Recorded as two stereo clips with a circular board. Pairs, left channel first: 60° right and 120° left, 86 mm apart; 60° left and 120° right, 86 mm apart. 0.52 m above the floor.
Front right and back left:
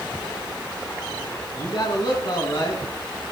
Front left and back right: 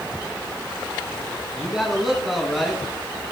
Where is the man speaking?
35° right, 6 m; by 2.8 s 30° right, 5.5 m.